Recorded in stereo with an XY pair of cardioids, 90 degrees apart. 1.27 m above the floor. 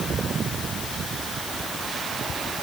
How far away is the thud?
No thud in this recording.